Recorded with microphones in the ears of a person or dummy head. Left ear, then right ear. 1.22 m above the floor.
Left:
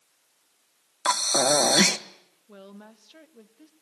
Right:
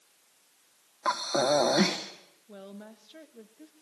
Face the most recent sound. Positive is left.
turn(degrees=15)  # may be behind; listen again after turning